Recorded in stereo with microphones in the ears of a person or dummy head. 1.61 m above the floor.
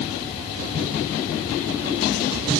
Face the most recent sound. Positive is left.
No sound to turn to.